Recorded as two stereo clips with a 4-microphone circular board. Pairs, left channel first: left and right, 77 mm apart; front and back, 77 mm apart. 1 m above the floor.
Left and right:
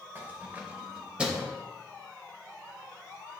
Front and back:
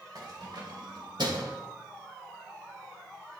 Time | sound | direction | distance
0.1 | keys jangling | 150° right | 2.5 m